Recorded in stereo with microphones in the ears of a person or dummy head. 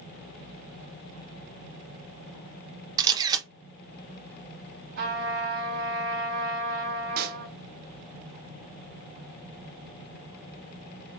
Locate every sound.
3.0 s a camera shutter: 20° right (ahead or behind), 0.6 m
5.0 s a trumpet: 55° right (ahead or behind), 1.7 m
7.2 s a pop: 50° right (ahead or behind), 0.5 m